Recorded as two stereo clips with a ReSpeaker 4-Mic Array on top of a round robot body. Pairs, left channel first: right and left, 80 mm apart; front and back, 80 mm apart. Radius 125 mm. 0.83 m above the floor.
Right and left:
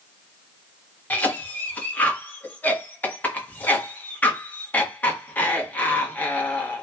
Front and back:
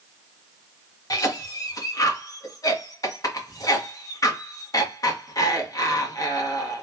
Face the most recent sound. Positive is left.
turn(degrees=-25)